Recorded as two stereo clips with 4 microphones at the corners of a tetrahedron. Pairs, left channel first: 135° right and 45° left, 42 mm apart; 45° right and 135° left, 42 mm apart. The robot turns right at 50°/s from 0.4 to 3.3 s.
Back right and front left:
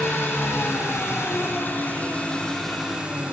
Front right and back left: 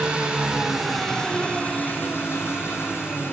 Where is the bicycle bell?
I don't hear a bicycle bell.